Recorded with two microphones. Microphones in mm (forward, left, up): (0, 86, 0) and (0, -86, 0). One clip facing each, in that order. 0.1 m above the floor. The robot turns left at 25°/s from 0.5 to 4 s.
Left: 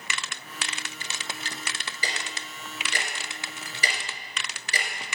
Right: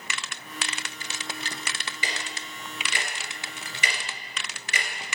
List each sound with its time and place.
2.0 s ticking: 35° left (ahead or behind), 2 m; by 4.9 s 30° left (ahead or behind), 2 m